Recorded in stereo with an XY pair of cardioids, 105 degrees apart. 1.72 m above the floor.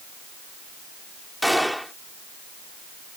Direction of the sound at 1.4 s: Straight ahead.